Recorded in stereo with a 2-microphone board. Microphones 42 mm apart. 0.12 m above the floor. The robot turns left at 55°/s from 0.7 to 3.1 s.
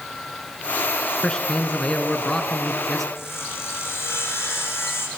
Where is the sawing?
80° left, 7 m.